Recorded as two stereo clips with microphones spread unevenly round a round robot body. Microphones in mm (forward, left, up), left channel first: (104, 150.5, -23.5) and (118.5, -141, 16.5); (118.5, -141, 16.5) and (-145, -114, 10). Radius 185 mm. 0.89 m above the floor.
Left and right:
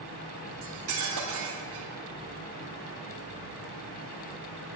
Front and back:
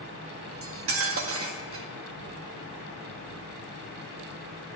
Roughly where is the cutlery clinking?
Behind right.